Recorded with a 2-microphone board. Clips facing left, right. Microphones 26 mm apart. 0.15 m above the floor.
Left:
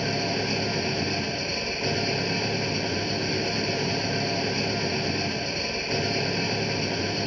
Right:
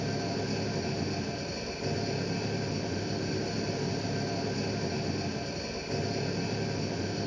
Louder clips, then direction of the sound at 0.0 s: Left 6 dB; 65° left (ahead or behind).